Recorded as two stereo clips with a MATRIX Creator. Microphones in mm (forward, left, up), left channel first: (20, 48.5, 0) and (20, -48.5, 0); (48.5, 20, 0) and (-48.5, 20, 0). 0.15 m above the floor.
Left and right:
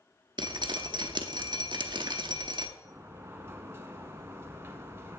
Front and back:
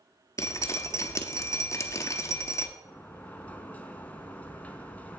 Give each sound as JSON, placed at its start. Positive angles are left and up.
{"t": 0.4, "sound": "dripping", "azimuth_deg": -55, "distance_m": 0.7}
{"t": 2.9, "sound": "a sliding door", "azimuth_deg": -60, "distance_m": 0.6}